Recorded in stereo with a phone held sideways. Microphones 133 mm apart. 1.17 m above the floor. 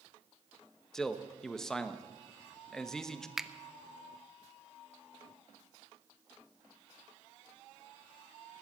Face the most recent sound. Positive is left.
turn(degrees=0)  # may be behind; listen again after turning